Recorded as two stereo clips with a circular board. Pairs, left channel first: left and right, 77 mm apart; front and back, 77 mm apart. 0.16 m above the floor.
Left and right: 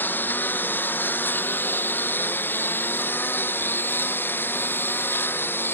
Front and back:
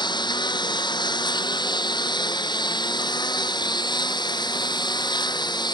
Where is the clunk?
No clunk in this recording.